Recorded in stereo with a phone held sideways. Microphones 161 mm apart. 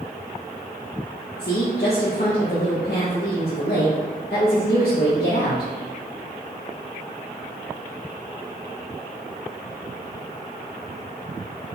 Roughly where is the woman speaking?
Left.